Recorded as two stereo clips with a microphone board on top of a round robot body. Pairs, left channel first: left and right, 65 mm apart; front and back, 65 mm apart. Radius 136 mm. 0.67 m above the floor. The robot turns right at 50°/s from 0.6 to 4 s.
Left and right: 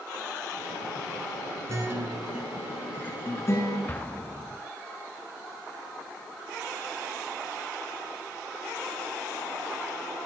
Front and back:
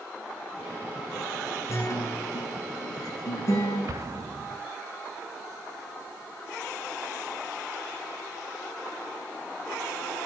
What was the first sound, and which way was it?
A guitar, 45° right.